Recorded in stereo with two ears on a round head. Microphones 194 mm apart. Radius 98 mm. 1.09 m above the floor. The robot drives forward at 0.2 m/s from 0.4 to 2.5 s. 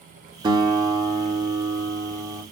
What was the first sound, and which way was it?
A guitar, 20° right (ahead or behind).